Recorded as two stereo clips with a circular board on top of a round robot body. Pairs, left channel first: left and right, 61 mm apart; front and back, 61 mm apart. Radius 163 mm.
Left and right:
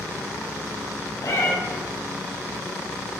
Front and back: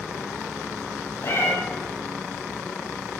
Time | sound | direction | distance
1.2 | a cat meowing | 55° left | 2 m